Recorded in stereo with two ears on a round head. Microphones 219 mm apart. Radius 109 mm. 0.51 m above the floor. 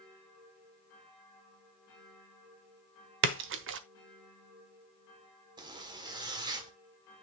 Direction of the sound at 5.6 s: 20° right (ahead or behind).